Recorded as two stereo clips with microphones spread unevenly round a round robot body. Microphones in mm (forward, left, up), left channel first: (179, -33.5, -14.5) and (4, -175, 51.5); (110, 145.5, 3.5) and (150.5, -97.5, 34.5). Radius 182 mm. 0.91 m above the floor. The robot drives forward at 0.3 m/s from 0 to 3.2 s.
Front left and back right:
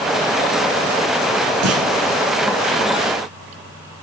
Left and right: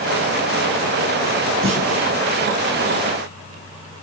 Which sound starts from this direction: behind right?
A clunk, at 1.6 s.